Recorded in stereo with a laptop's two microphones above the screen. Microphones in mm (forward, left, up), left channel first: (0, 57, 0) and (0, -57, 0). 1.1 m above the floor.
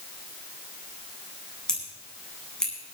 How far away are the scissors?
About 9.5 m.